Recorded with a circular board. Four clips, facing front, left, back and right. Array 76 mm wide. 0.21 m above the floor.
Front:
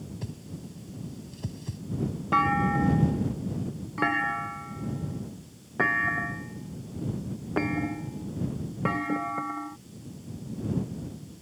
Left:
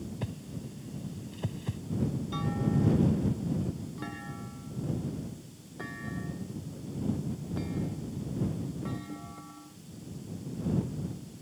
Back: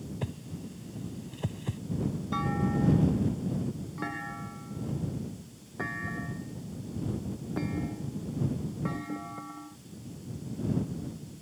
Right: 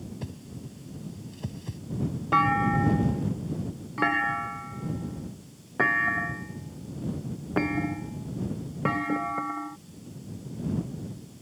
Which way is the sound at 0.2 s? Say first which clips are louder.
Left 1 dB, back 1 dB; 155° left.